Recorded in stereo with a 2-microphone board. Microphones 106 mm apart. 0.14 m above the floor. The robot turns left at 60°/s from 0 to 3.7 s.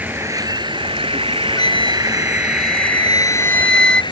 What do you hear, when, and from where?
0.0 s an insect: 20° right; by 4.1 s 120° left
1.6 s a flute: 135° left; by 4.0 s 10° left